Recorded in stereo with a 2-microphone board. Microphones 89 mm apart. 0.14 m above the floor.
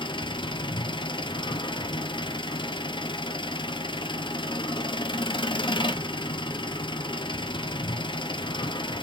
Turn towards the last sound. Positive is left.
turn(degrees=65)  # may be behind; listen again after turning